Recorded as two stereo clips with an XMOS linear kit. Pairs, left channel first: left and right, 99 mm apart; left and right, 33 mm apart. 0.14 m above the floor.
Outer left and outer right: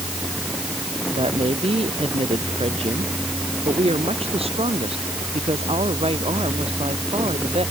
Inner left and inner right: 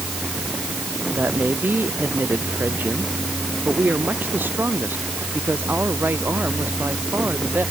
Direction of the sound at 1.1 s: 80° right.